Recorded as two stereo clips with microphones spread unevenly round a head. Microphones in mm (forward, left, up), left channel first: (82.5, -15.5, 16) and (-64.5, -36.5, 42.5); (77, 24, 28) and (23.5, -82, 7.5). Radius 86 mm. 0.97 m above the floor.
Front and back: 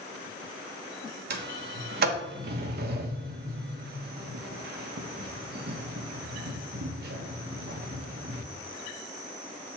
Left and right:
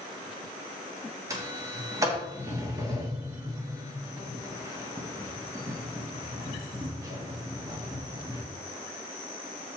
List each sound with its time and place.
1.3 s a sliding door: 175° right, 1.2 m